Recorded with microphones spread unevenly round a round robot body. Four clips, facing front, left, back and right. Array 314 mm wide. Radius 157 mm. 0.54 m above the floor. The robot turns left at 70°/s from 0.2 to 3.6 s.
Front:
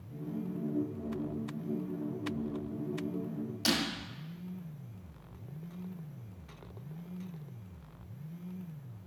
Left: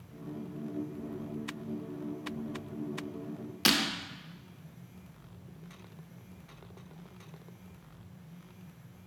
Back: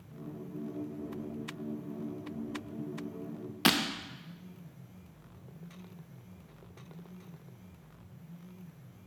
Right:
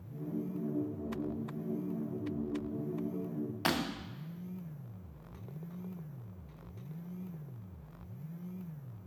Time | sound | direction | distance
3.6 | breaking glass | 155° left | 0.6 m